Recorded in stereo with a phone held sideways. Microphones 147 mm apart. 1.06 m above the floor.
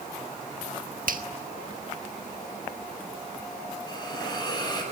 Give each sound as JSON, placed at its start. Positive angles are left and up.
{"t": 1.1, "sound": "a finger snap", "side_deg": -70, "distance_m": 1.4}
{"t": 3.9, "sound": "a hiss", "side_deg": 25, "distance_m": 6.5}